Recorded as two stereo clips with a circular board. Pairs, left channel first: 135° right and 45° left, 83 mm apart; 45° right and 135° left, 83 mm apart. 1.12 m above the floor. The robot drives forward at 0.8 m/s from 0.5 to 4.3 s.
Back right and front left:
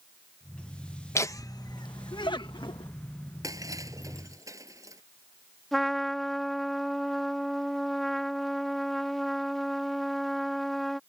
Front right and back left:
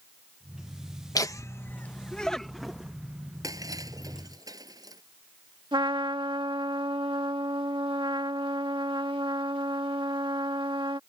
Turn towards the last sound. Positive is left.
turn(degrees=140)